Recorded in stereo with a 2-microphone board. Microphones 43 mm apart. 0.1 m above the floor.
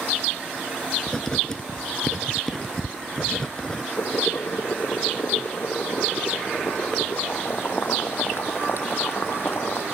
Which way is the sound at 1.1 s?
15° left (ahead or behind).